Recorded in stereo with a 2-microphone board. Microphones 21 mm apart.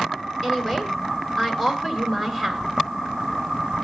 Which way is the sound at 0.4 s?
15° left (ahead or behind).